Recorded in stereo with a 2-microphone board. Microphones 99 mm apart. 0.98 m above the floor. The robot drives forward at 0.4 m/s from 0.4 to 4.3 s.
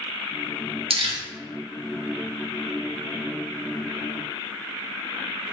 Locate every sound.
0.9 s crumpling: 70° right (ahead or behind), 0.7 m; by 1.2 s 65° right (ahead or behind), 0.7 m